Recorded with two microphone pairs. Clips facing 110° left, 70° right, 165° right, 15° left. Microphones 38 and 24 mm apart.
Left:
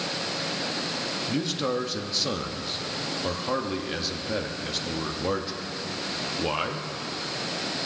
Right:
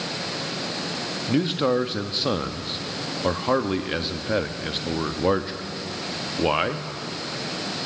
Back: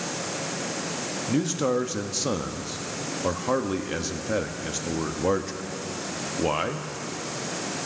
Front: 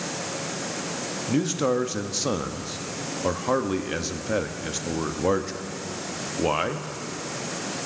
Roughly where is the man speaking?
Ahead right.